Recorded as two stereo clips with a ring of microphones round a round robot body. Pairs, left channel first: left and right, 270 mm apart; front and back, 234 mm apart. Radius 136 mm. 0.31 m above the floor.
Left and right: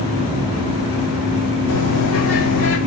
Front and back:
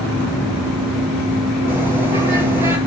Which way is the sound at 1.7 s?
100° left.